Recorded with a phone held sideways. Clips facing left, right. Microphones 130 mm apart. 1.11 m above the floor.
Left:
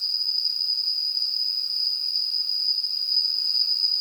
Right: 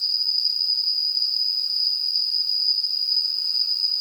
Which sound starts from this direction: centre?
An insect, at 0.0 s.